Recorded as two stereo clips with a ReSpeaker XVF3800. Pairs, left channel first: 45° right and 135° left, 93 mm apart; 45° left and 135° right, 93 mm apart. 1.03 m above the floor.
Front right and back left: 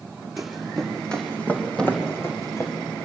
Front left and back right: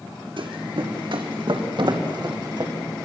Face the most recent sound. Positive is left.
turn(degrees=-125)